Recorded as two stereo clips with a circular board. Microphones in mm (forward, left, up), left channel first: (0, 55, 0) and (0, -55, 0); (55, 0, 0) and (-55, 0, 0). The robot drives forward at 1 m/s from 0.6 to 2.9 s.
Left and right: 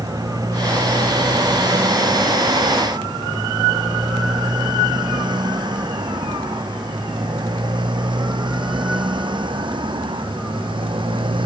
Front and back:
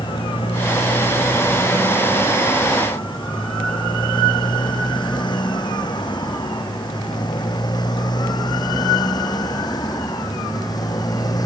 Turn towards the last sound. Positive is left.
turn(degrees=-50)